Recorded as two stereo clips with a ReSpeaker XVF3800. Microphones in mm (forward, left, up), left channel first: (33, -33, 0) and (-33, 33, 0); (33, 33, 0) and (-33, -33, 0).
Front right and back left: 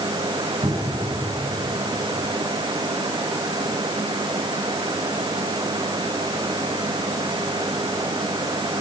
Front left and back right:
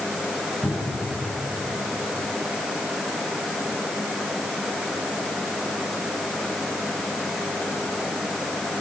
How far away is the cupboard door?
About 8.5 m.